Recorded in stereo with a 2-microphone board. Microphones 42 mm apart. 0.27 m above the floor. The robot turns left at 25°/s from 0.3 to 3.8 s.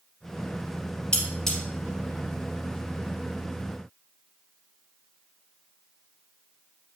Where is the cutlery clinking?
20° left (ahead or behind), 4 m; by 1.6 s 10° left (ahead or behind), 4 m.